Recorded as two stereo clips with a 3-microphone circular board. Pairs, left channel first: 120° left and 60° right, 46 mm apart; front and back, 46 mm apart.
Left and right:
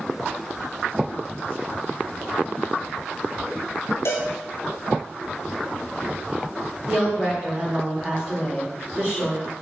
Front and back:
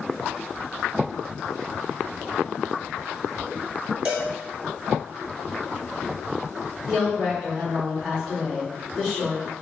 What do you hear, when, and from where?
4.0 s a cowbell: 110° left, 0.8 m
6.9 s a woman speaking: 75° right, 1.6 m